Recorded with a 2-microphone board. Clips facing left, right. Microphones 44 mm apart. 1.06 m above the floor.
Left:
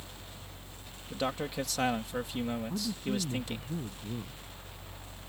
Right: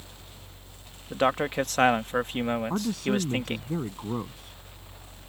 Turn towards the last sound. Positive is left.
turn(degrees=-90)